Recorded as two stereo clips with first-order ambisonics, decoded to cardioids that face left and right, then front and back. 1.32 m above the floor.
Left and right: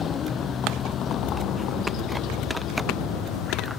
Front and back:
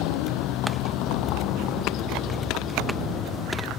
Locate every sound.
0.0 s a vehicle: 25° left; by 3.8 s 55° left